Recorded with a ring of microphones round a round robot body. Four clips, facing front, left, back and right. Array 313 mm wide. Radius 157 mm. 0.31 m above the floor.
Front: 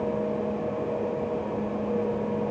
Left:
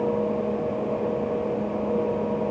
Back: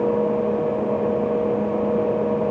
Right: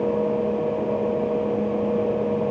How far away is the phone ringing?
No phone ringing in this recording.